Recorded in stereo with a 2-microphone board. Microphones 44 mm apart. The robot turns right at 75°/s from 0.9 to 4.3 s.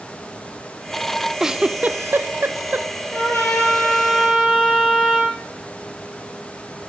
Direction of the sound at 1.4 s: 10° right (ahead or behind).